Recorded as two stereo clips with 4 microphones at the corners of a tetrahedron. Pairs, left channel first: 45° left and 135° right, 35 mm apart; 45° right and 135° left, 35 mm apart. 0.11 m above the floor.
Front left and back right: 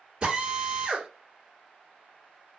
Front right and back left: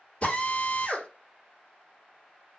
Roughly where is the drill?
Right.